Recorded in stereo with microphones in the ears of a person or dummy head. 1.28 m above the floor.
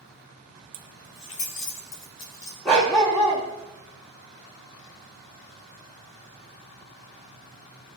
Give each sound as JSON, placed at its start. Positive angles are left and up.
{"t": 0.7, "sound": "keys jangling", "side_deg": -45, "distance_m": 0.7}
{"t": 2.6, "sound": "a dog barking", "side_deg": 5, "distance_m": 0.8}